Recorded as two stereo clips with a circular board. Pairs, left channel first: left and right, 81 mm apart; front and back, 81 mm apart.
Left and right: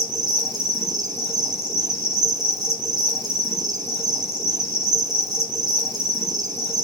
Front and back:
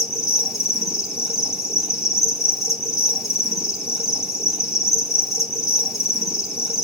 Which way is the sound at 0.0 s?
95° right.